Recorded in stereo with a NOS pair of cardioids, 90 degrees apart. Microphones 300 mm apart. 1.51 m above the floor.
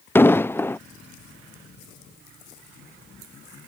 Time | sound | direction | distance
0.1 | an explosion | 10° left | ?